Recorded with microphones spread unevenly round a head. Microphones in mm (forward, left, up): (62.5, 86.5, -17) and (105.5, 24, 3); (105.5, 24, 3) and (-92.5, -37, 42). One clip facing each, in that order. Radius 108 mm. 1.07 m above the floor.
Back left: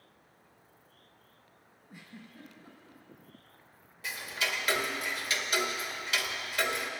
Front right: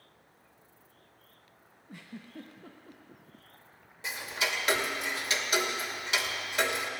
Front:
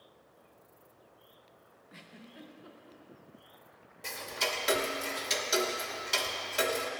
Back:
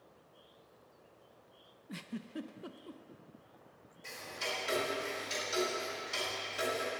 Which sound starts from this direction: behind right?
A giggle, at 1.9 s.